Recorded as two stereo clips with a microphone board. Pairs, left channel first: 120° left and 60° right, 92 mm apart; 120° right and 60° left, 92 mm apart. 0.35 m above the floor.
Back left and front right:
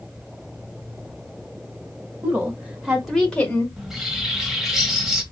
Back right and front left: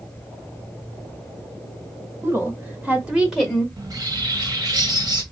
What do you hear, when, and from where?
2.2 s a woman speaking: 5° left, 1.5 m; by 3.7 s 160° left, 1.1 m
3.8 s a bird: 30° left, 1.1 m